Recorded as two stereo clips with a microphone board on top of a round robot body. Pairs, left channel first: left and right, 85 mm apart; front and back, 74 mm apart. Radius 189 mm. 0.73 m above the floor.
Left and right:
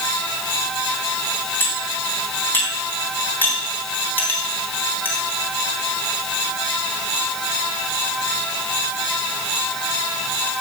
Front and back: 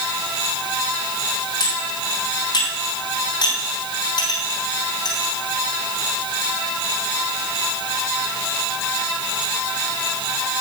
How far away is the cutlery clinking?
About 4 m.